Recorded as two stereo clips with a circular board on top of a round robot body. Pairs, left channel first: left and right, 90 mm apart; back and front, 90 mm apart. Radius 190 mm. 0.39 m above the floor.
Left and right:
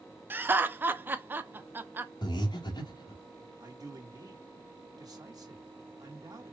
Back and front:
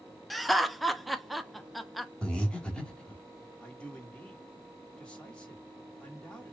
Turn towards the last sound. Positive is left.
turn(degrees=-105)